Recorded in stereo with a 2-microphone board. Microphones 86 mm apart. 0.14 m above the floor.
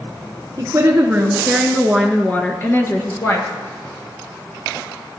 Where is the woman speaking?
40° right (ahead or behind), 1.7 m; by 3.5 s 40° left (ahead or behind), 2.5 m.